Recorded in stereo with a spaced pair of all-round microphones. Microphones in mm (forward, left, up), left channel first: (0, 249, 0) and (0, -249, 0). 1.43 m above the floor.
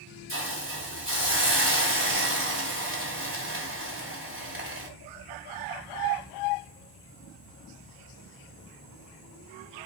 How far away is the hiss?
About 1.4 m.